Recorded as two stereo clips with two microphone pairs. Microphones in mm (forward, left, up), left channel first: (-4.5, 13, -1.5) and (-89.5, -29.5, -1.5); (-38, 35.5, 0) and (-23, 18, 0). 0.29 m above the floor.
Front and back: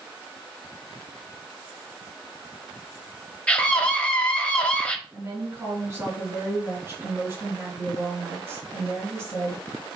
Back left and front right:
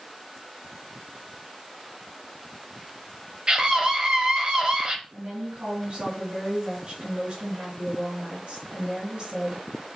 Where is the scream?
45° right, 1.2 m.